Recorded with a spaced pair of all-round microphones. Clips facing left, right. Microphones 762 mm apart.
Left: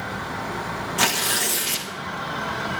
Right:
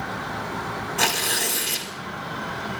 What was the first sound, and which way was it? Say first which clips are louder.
Tearing paper: left 1 dB; 40° left (ahead or behind).